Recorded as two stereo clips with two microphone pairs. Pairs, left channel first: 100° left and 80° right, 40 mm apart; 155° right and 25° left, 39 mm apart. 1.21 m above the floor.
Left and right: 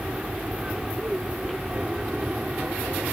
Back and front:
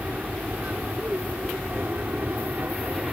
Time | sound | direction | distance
0.0 | an aircraft | 20° right | ?